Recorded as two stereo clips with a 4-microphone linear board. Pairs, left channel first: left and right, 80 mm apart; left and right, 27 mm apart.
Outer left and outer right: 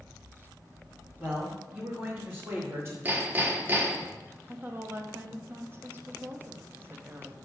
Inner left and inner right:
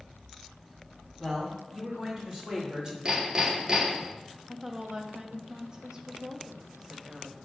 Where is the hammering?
25° right (ahead or behind), 1.2 m.